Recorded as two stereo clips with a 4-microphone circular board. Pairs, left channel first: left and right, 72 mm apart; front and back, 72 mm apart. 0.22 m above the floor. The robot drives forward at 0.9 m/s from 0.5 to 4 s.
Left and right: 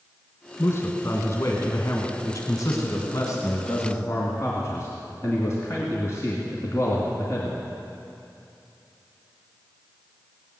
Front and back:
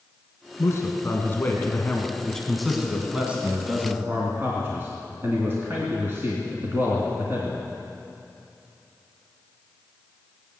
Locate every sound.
0.6 s a man speaking: 40° left, 2.5 m; by 7.6 s 130° left, 2.5 m